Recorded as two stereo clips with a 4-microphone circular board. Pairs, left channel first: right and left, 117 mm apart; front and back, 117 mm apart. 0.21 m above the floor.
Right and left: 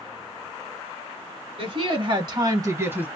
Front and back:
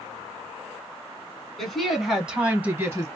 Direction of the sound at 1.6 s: 85° left.